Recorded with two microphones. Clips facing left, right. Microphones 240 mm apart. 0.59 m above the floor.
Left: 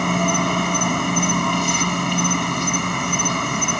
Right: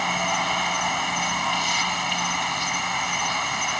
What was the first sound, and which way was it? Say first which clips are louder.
An insect: left 10 dB; 55° left (ahead or behind).